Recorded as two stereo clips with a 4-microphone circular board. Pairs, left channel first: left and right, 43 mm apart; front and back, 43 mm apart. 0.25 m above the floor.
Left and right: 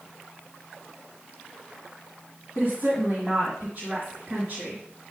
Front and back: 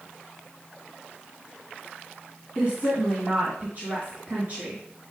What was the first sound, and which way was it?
A woman speaking, 155° right.